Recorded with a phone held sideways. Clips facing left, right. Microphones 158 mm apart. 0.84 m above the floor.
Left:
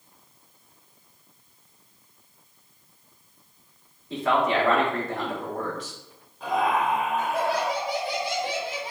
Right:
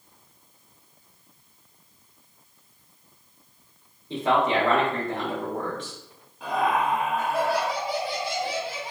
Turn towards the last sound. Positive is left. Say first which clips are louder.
# even
turn(degrees=0)  # may be behind; listen again after turning